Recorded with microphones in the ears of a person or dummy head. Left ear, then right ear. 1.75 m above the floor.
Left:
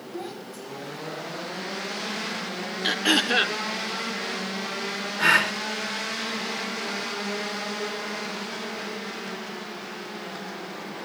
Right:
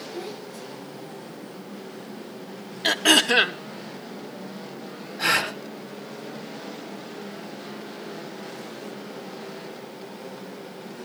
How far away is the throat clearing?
About 0.8 m.